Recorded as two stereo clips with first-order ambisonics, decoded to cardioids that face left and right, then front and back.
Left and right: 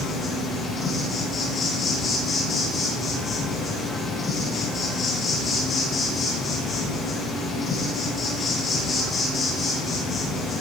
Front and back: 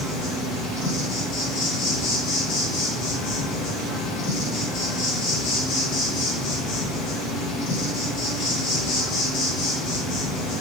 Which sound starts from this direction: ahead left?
An insect, at 0.0 s.